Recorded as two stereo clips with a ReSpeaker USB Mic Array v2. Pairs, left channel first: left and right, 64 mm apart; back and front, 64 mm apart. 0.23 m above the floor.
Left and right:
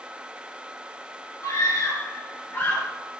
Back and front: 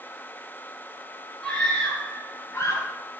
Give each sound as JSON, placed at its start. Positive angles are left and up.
{"t": 1.4, "sound": "a scream", "azimuth_deg": 100, "distance_m": 3.5}